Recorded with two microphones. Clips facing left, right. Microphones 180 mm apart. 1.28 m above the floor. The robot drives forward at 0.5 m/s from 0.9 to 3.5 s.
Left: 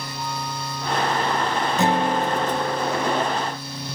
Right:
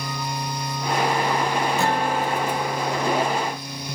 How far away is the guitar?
About 0.6 m.